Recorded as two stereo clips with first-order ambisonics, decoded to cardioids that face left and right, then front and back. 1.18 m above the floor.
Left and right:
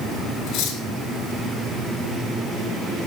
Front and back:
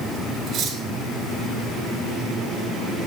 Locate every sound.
0.5 s cutlery clinking: 125° left, 4 m